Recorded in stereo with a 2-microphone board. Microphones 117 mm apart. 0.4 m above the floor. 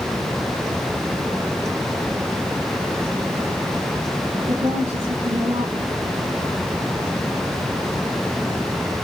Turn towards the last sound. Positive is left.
turn(degrees=-70)  # may be behind; listen again after turning